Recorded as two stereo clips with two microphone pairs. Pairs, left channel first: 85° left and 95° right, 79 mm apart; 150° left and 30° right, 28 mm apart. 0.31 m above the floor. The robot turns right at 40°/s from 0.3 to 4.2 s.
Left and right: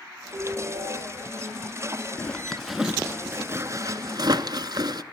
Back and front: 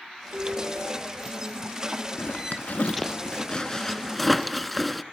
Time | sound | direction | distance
0.3 | a ringtone | 45° right | 5 m
2.2 | a zipper | 155° left | 0.5 m